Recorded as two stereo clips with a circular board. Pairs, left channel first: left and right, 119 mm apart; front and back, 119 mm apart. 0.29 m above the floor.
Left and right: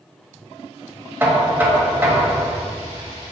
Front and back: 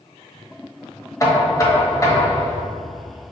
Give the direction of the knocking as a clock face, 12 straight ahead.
1 o'clock.